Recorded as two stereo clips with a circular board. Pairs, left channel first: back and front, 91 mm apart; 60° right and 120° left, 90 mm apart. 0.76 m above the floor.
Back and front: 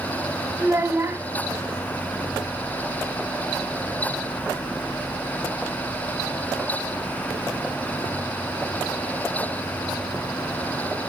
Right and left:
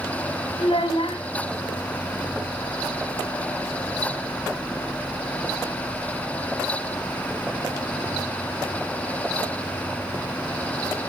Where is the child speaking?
65° right, 1.9 m.